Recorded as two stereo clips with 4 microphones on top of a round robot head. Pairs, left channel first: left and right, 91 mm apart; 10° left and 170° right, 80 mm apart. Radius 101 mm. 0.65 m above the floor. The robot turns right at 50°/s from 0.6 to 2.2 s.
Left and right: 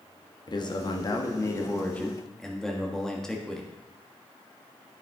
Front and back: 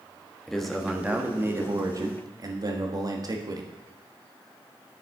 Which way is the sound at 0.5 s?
95° left.